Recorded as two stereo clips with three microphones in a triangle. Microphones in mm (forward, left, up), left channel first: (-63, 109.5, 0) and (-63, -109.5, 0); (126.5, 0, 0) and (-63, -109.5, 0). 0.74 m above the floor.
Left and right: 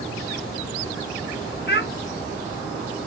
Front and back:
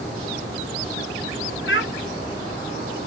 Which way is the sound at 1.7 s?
55° left.